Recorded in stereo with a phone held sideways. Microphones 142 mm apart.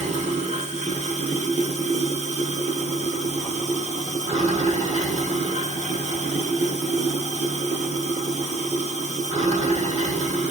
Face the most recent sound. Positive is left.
turn(degrees=-50)  # may be behind; listen again after turning